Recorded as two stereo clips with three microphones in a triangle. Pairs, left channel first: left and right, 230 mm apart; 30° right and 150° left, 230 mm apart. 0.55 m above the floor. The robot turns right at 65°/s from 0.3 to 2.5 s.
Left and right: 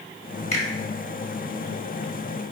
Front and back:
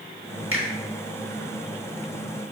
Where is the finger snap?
145° left, 0.9 m; by 0.7 s 155° left, 0.9 m.